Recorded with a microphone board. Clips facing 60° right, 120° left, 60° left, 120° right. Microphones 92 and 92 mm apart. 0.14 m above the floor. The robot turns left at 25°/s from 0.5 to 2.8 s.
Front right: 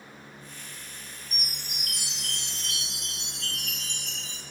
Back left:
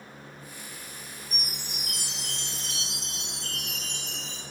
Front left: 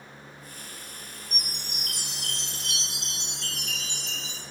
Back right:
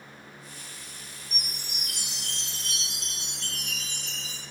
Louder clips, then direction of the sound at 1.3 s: Back left 1 dB, front left 1 dB; 35° right.